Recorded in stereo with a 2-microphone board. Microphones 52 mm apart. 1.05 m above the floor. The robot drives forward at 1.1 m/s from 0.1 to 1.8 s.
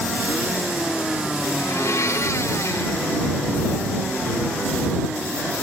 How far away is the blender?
About 1.2 m.